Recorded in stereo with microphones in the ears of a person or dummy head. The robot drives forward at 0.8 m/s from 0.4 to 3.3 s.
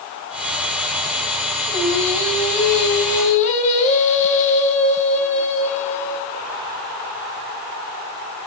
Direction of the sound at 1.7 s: 30° left (ahead or behind).